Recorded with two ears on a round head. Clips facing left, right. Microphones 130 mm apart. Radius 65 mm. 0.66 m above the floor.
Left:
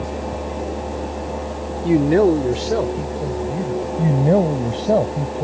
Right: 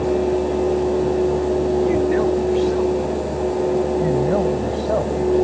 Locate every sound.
1.8 s a man speaking: 35° left (ahead or behind); by 3.9 s 75° left (ahead or behind)
4.0 s a man speaking: 30° left (ahead or behind)